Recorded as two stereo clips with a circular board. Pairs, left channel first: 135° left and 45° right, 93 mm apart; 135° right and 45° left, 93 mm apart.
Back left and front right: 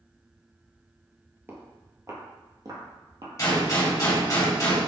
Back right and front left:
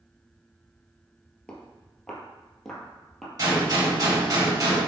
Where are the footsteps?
65° right, 1.6 m; by 3.3 s 45° right, 2 m.